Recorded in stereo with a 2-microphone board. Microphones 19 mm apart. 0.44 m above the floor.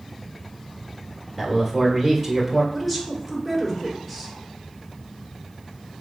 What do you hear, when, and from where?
1.4 s a man speaking: centre (ahead or behind), 1.4 m
2.7 s a woman speaking: centre (ahead or behind), 1.5 m